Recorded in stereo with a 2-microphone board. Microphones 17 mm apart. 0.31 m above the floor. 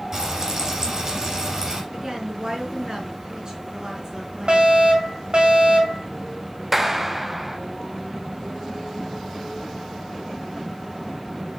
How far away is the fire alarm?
About 5 m.